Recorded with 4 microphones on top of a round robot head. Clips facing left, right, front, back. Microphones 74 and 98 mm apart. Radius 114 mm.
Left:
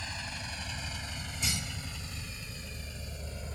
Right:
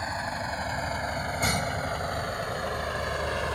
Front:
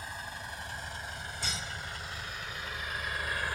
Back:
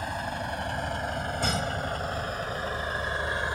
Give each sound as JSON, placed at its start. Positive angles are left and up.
{"t": 0.0, "sound": "a vehicle", "azimuth_deg": -140}